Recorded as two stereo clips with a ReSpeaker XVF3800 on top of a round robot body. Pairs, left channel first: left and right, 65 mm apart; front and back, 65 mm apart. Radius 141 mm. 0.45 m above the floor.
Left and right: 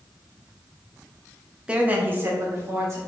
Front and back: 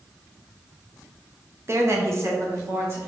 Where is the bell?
I don't hear a bell.